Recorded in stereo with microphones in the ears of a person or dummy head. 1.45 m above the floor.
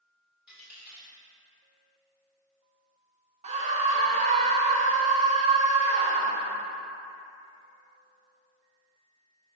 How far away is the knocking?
No knocking in this recording.